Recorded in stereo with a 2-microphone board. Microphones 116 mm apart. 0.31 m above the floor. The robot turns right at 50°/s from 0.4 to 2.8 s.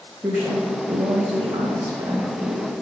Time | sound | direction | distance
0.2 | a woman speaking | 155° right | 1.2 m